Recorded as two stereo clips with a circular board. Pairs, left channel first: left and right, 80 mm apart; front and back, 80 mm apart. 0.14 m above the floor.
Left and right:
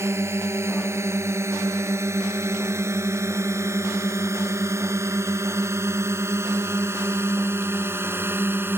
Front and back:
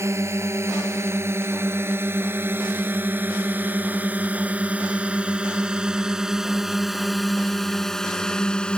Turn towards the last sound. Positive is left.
turn(degrees=-65)